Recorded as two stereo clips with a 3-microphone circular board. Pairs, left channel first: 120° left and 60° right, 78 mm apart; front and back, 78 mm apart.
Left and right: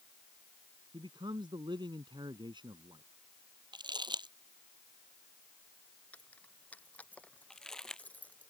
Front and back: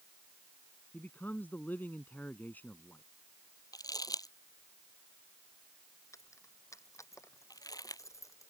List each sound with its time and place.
0.9 s a man speaking: 70° right
3.7 s crumpling: 40° right
6.1 s keys jangling: 50° left
7.5 s crumpling: 40° left